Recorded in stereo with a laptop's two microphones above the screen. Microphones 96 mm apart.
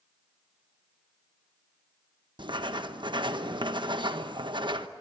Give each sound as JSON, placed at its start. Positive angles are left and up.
{"t": 2.4, "sound": "writing", "side_deg": -55, "distance_m": 1.1}